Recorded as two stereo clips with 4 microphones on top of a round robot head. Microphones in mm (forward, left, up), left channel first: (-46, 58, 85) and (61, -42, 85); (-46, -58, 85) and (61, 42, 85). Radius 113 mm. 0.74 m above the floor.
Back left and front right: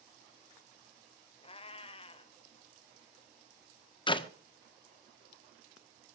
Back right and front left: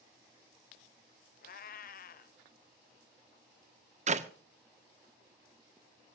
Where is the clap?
80° left, 1.4 m.